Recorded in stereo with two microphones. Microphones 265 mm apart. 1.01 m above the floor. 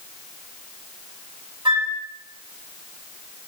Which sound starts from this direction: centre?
A flute, at 1.6 s.